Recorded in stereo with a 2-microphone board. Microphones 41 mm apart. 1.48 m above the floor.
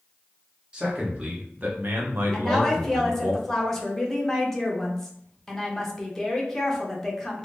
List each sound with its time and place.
0.7 s a man speaking: 25° right (ahead or behind), 1.3 m; by 3.3 s 55° right (ahead or behind), 1.0 m
2.3 s a woman speaking: 10° left (ahead or behind), 0.8 m